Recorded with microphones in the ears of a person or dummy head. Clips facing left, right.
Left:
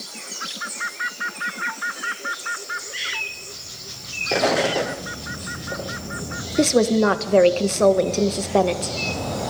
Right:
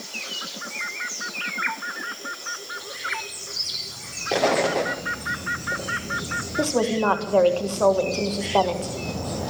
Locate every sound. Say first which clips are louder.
4.3 s an explosion: left 1 dB; centre (ahead or behind), 0.9 m
6.6 s a woman speaking: left 5 dB; 35° left (ahead or behind), 1.6 m